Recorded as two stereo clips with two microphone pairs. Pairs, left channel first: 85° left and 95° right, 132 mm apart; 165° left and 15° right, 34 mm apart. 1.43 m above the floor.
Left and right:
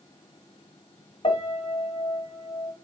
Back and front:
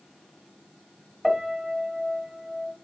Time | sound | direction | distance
1.2 | a piano | 60° left | 1.2 m